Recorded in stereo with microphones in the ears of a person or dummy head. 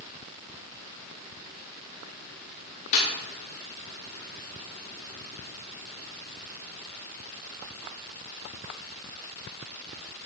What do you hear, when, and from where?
2.9 s a snare drum: 40° left (ahead or behind), 4 m